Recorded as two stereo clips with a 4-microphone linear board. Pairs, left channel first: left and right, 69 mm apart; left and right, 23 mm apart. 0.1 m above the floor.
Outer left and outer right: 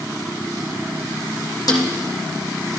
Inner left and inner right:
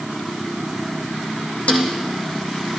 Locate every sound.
1.7 s a snare drum: 65° left (ahead or behind), 1.8 m